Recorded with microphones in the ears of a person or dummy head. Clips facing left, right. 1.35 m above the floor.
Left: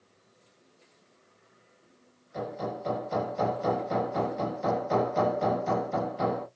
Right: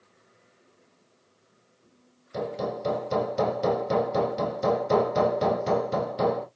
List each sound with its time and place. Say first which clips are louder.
2.3 s hammering: right 4 dB; 50° right (ahead or behind), 2 m